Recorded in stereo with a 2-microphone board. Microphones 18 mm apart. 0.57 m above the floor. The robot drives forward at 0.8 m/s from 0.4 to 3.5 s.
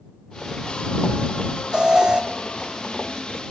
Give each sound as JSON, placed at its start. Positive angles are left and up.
{"t": 1.7, "sound": "an alarm", "side_deg": -45, "distance_m": 1.2}